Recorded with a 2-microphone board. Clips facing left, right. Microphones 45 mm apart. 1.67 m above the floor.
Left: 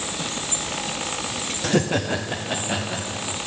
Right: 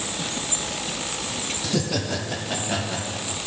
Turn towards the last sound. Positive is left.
turn(degrees=5)  # may be behind; listen again after turning